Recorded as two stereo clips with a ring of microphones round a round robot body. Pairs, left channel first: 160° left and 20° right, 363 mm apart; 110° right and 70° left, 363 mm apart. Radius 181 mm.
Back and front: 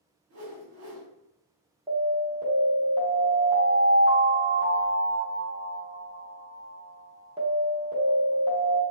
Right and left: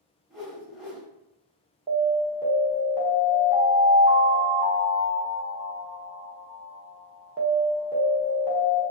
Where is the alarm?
10° left, 1.0 m.